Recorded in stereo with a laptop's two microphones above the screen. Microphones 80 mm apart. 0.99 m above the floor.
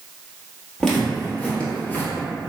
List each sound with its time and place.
0.8 s footsteps: 10° left (ahead or behind), 1.2 m; by 2.1 s 20° left (ahead or behind), 1.0 m